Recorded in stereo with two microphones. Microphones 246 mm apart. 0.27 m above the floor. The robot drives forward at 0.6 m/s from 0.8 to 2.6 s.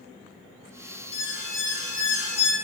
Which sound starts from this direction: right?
An alarm, at 1.1 s.